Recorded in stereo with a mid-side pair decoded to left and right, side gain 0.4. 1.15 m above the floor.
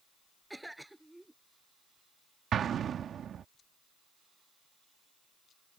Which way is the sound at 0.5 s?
10° right.